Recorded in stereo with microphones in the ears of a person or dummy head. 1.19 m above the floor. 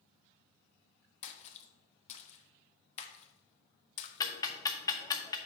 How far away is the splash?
About 0.8 m.